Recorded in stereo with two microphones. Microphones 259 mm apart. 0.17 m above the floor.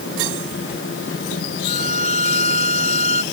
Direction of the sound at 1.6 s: 25° left (ahead or behind).